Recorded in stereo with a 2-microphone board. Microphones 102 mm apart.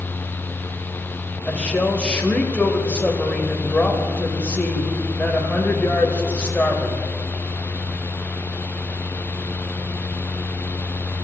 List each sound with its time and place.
1.5 s a woman speaking: 10° left (ahead or behind), 1.3 m